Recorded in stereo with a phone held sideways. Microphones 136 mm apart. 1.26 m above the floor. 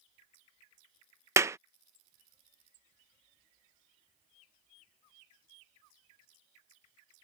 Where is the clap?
20° right (ahead or behind).